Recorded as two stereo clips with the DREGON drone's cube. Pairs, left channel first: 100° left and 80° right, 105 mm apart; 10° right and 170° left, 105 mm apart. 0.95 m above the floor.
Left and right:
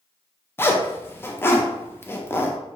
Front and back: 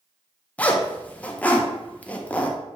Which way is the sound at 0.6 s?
55° left.